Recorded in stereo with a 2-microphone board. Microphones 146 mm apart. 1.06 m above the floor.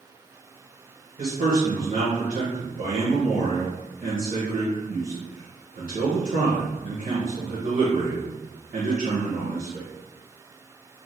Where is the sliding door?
No sliding door in this recording.